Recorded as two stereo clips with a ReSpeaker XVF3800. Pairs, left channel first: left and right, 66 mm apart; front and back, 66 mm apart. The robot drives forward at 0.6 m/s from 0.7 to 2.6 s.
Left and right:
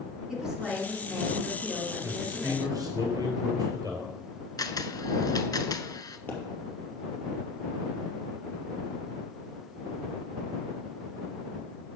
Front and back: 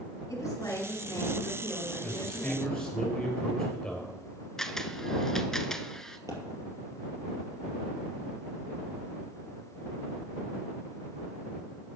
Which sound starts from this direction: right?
A man speaking, at 2.0 s.